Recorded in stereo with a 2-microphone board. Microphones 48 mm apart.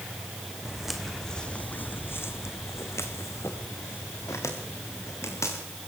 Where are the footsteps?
10° right (ahead or behind), 2 m; by 5.6 s 80° left, 6 m.